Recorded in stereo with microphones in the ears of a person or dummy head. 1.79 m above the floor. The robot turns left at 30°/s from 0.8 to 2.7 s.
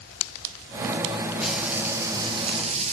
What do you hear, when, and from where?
1.4 s frying: straight ahead, 0.7 m; by 2.9 s 40° right, 0.7 m